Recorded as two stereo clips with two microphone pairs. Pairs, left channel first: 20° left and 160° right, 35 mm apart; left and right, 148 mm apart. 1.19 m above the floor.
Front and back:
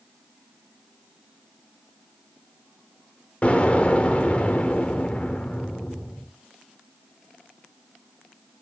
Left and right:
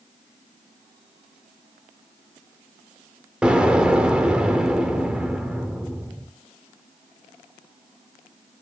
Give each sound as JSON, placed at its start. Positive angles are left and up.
{"t": 3.4, "sound": "an explosion", "azimuth_deg": -10, "distance_m": 1.0}